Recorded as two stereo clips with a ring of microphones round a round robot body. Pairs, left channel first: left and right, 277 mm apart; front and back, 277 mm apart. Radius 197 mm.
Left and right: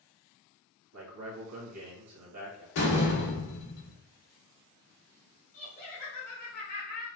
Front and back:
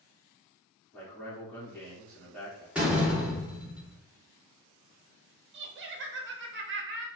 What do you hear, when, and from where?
0.9 s a man speaking: 85° right, 1.5 m
2.8 s a door slam: 95° left, 2 m
5.5 s laughter: 140° left, 0.8 m